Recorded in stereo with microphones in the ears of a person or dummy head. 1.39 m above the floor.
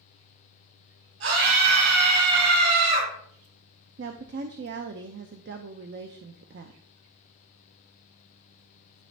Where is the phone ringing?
No phone ringing in this recording.